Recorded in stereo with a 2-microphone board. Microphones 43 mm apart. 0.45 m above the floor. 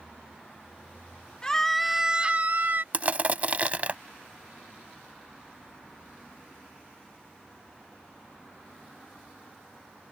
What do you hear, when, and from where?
1.4 s a scream: 20° left (ahead or behind); by 2.8 s 50° right (ahead or behind)
2.9 s crushing: 35° right (ahead or behind)